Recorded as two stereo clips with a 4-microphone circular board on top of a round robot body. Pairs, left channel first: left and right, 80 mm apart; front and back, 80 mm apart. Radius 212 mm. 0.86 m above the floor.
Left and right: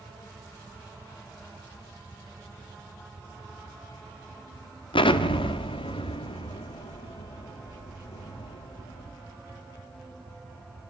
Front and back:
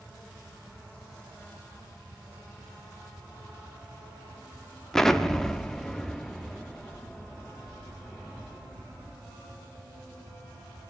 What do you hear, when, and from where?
4.9 s an explosion: 85° left, 1.1 m